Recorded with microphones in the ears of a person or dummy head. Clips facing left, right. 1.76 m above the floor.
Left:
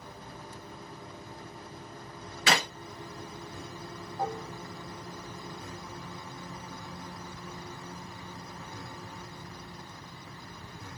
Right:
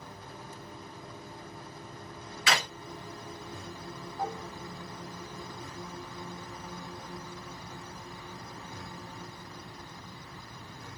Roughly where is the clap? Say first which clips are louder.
Left 3 dB; left.